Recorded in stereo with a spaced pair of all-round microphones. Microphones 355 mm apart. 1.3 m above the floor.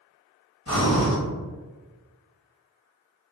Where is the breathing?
45° left (ahead or behind), 1.5 m.